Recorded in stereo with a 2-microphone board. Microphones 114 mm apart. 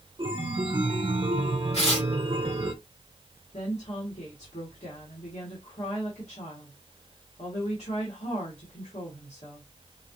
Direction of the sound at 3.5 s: 75° left (ahead or behind).